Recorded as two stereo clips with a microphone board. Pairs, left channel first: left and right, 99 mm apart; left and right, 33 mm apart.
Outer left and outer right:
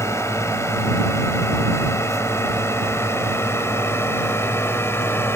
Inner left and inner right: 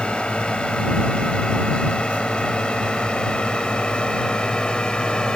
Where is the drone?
30° left (ahead or behind); by 5.4 s 25° left (ahead or behind).